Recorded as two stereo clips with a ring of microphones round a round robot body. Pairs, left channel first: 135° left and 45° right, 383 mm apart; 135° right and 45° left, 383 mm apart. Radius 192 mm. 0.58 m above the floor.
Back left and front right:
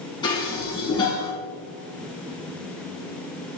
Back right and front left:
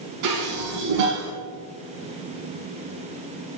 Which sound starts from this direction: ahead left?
Dishes clattering, at 0.2 s.